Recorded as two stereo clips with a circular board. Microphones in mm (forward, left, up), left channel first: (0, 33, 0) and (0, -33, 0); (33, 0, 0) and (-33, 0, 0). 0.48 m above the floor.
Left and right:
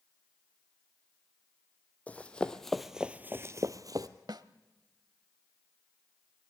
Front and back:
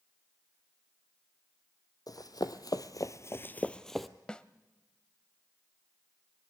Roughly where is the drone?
I don't hear a drone.